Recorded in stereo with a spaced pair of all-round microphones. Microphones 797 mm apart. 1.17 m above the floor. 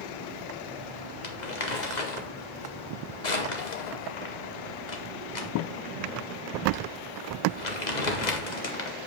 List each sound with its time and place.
1.2 s crumpling: 55° left (ahead or behind), 1.8 m